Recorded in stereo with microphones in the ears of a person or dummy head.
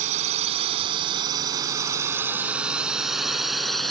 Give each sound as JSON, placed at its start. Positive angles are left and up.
{"t": 0.0, "sound": "a drone", "side_deg": -35}